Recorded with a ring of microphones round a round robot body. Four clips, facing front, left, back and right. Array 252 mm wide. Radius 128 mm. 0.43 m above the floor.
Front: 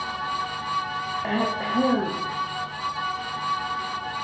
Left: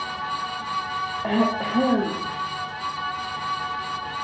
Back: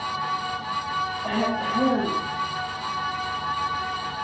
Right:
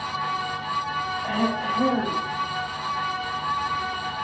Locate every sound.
1.2 s throat clearing: 65° left, 5.5 m